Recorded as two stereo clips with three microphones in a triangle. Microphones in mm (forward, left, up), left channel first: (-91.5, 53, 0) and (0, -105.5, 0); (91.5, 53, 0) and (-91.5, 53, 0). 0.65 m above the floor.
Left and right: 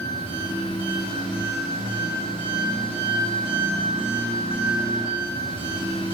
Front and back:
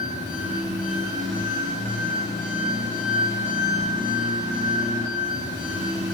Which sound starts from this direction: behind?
An engine running, at 0.0 s.